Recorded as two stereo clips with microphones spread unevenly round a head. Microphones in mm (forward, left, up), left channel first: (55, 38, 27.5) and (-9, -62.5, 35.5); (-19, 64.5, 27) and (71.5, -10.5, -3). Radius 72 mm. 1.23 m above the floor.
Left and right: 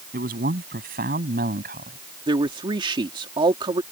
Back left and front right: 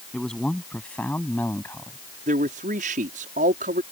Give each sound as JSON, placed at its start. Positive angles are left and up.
{"t": 0.1, "sound": "a man speaking", "azimuth_deg": -135}
{"t": 2.3, "sound": "a man speaking", "azimuth_deg": -70}